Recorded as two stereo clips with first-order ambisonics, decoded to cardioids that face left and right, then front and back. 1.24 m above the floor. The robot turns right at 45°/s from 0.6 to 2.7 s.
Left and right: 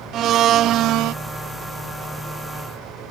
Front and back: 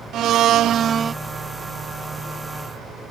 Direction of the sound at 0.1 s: 135° right.